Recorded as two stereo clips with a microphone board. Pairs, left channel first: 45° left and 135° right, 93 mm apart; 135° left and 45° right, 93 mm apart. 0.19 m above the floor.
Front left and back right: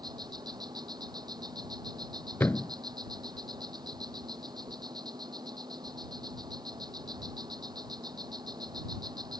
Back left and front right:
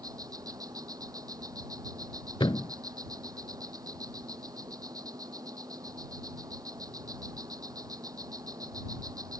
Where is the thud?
110° left.